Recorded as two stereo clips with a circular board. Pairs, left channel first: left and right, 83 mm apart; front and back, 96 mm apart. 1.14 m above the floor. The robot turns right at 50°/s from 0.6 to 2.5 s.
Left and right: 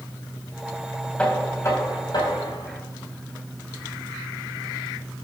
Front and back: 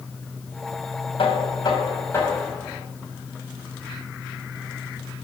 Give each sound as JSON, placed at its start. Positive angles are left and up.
{"t": 1.2, "sound": "knocking", "azimuth_deg": 15, "distance_m": 4.5}